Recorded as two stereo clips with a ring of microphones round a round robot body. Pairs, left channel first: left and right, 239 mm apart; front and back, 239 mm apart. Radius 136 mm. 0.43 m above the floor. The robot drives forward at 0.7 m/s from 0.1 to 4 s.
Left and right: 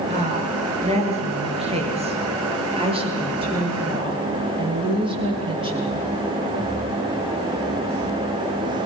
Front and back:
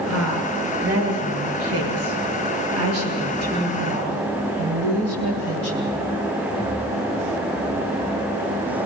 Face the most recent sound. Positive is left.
turn(degrees=-160)